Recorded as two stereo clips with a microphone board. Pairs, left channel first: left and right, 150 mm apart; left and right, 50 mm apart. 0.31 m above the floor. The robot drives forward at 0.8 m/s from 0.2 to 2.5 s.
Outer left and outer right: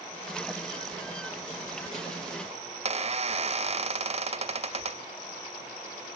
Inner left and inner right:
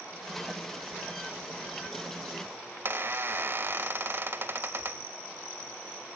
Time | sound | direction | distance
2.9 | a squeak | 45° right (ahead or behind) | 0.5 m